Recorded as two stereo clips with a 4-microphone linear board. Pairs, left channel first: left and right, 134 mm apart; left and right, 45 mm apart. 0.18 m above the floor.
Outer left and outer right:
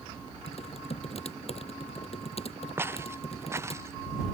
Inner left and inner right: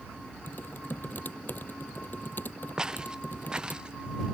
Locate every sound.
0.5 s typing on a keyboard: 55° left (ahead or behind)
2.8 s footsteps: 15° right (ahead or behind); by 4.2 s 20° right (ahead or behind)